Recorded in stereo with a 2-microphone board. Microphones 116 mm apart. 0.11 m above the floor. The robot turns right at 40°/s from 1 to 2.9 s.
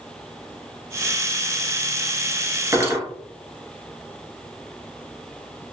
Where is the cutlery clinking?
25° right (ahead or behind), 0.8 m; by 3.0 s 20° right (ahead or behind), 0.8 m.